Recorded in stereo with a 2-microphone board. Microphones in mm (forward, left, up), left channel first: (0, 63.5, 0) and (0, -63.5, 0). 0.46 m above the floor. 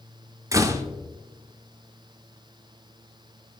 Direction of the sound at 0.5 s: 25° right (ahead or behind).